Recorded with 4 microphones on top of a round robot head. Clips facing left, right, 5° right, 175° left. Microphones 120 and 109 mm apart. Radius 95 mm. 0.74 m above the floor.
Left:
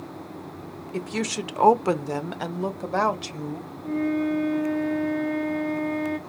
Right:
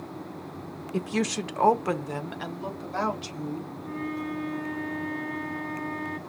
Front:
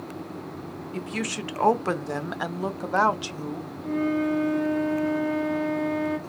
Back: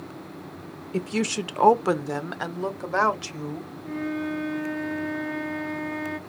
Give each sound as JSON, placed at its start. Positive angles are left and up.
{"t": 0.9, "sound": "a woman speaking", "azimuth_deg": -160, "distance_m": 0.7}
{"t": 3.8, "sound": "a flute", "azimuth_deg": 25, "distance_m": 1.9}